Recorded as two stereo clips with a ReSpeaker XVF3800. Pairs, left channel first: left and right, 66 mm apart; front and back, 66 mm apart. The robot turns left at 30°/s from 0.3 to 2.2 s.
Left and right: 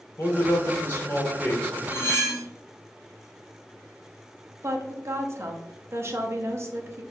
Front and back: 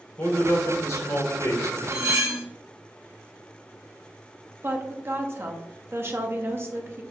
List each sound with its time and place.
0.2 s a man speaking: 55° left, 1.3 m; by 1.8 s 10° left, 1.3 m
1.9 s cutlery clinking: 140° left, 1.2 m; by 2.5 s 130° left, 1.2 m
4.6 s a woman speaking: 130° right, 0.7 m